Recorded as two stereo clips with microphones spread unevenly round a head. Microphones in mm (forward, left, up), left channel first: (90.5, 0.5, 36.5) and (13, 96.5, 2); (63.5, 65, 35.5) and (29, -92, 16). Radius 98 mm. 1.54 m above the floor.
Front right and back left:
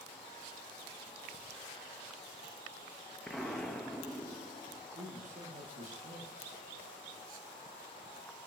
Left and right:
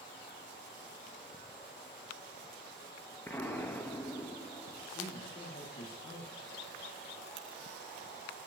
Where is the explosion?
15° left, 1.0 m.